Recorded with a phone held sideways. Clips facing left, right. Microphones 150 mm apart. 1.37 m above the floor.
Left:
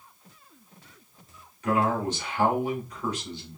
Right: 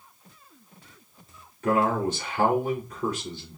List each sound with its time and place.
1.6 s a man speaking: 50° right (ahead or behind), 3.5 m